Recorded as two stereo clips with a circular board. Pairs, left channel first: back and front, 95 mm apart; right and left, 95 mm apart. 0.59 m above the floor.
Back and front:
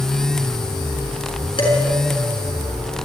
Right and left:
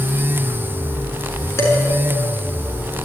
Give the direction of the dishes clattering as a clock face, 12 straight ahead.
5 o'clock.